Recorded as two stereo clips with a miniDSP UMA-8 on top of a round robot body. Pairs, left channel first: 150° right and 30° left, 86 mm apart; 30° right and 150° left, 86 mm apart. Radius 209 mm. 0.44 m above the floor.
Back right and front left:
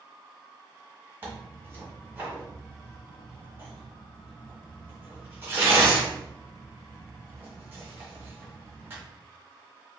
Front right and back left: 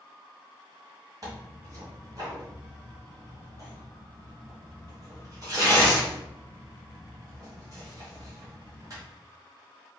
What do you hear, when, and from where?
1.2 s tearing paper: 95° left, 1.4 m